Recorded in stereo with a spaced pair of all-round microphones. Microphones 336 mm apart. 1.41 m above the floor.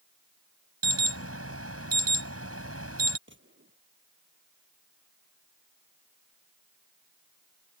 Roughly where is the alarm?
Right.